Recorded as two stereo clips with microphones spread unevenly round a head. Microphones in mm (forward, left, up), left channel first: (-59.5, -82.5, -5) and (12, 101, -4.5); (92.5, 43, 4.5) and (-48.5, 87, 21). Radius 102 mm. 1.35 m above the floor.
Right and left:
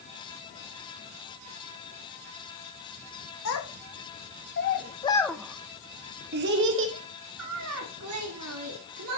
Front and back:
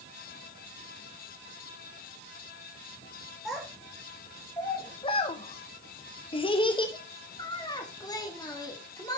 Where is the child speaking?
110° right, 1.2 m; by 9.2 s 50° left, 2.5 m.